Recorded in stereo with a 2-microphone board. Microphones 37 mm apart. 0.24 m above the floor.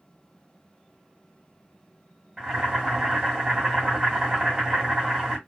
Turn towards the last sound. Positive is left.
turn(degrees=-15)  # may be behind; listen again after turning